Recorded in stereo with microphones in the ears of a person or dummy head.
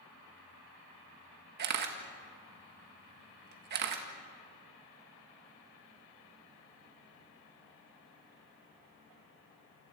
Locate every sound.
1.6 s a camera shutter: 55° right (ahead or behind), 1.7 m